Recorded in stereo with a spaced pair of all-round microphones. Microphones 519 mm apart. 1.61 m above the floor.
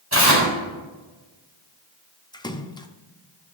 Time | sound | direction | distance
0.1 | tearing paper | 30° right (ahead or behind) | 4 m
2.3 | a splash | 10° left (ahead or behind) | 0.6 m